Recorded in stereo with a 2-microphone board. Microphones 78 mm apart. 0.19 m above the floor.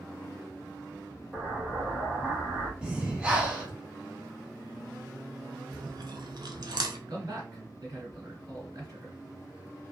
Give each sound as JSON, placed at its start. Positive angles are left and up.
{"t": 1.3, "sound": "an explosion", "side_deg": -10, "distance_m": 1.2}
{"t": 2.8, "sound": "breathing", "side_deg": -10, "distance_m": 0.9}
{"t": 5.7, "sound": "chewing", "side_deg": -60, "distance_m": 0.5}
{"t": 7.1, "sound": "a man speaking", "side_deg": -50, "distance_m": 2.0}